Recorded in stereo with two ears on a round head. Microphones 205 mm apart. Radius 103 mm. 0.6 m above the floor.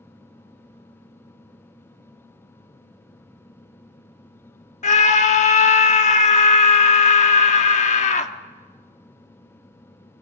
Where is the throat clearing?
No throat clearing in this recording.